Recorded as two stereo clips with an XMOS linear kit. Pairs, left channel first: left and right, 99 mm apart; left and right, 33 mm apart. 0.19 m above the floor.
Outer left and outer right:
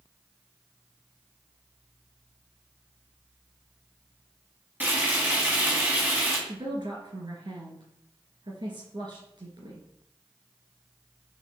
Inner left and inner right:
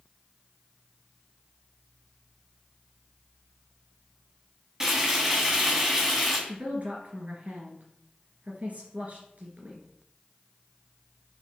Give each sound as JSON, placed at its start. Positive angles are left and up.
{"t": 4.8, "sound": "frying", "side_deg": -20, "distance_m": 1.2}
{"t": 6.5, "sound": "a woman speaking", "side_deg": -55, "distance_m": 2.0}